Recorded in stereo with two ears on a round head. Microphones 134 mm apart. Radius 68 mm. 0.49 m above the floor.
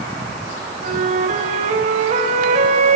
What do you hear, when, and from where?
0.8 s a flute: 50° right (ahead or behind), 3.5 m